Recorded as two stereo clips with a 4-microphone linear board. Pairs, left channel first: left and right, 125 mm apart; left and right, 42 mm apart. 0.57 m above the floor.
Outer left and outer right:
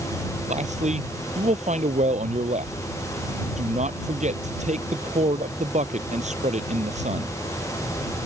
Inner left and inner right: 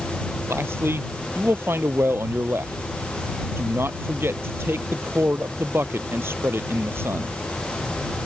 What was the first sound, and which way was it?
A man speaking, 70° right (ahead or behind).